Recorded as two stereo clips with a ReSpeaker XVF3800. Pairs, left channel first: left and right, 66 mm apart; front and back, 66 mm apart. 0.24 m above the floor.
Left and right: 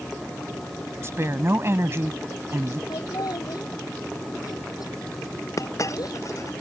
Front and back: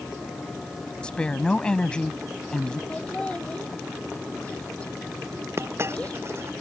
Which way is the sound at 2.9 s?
70° left.